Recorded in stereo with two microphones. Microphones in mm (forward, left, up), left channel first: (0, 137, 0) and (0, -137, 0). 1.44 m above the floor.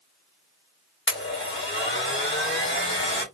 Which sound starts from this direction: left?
A blender, at 1.1 s.